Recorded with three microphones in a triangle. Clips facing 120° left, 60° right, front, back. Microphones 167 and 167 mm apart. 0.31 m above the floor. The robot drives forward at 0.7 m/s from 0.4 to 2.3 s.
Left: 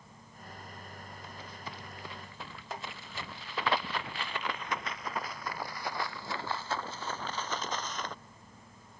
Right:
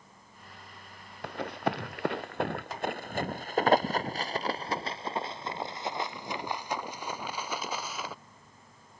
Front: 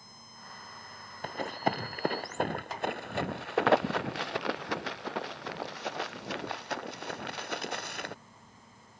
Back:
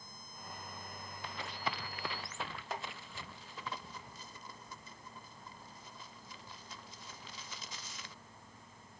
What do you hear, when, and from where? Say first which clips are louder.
1.2 s running footsteps: right 17 dB, front 10 dB; 40° right; by 8.1 s 25° left